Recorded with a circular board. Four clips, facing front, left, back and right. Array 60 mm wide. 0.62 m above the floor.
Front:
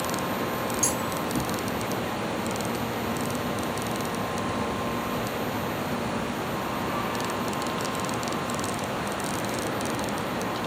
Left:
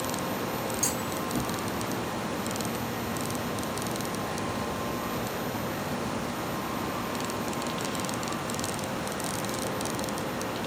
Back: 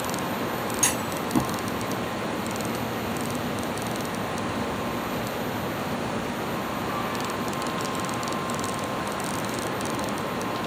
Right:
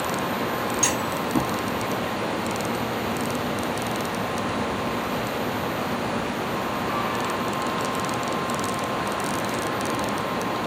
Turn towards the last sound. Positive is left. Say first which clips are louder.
# right 6 dB, even
turn(degrees=-135)